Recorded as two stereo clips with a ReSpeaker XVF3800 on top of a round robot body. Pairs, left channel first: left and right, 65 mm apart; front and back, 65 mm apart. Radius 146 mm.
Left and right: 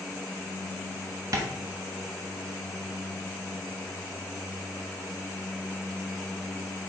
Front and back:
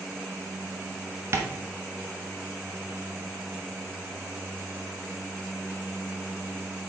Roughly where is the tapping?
Behind right.